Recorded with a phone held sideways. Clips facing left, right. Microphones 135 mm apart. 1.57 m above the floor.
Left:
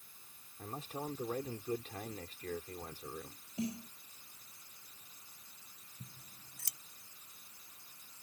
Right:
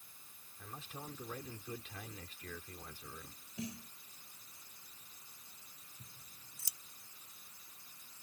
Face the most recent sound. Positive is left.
turn(degrees=65)  # may be behind; listen again after turning